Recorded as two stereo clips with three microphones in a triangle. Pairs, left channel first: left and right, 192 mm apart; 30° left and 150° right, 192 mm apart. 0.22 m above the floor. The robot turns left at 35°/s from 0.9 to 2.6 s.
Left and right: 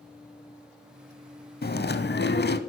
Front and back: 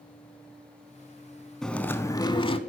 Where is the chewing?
115° left, 0.5 m; by 2.6 s 80° left, 0.5 m.